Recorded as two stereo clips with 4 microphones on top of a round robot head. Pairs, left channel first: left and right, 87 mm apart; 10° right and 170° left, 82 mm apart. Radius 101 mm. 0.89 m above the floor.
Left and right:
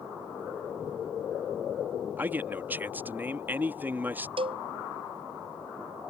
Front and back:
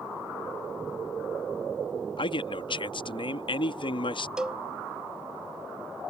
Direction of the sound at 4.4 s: 110° right.